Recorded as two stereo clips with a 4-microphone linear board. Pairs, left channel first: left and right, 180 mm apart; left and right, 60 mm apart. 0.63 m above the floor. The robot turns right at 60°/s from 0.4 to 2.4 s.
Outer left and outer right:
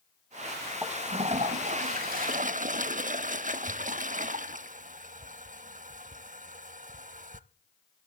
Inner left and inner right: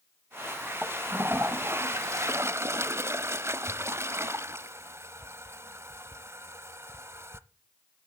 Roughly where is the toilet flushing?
Behind.